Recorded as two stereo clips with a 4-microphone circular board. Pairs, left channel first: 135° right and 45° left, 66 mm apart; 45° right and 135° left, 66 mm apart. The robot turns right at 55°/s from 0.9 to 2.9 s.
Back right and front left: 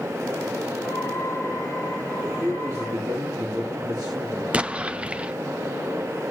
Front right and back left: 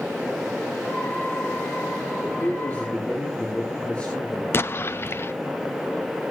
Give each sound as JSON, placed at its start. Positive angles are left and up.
{"t": 2.4, "sound": "a man speaking", "azimuth_deg": 0, "distance_m": 3.0}
{"t": 4.5, "sound": "an explosion", "azimuth_deg": -20, "distance_m": 0.5}